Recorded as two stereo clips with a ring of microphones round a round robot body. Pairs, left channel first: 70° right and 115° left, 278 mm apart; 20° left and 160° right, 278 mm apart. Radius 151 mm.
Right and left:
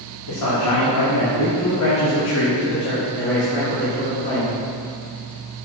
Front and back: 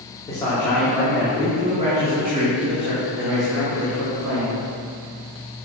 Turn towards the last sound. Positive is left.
turn(degrees=-135)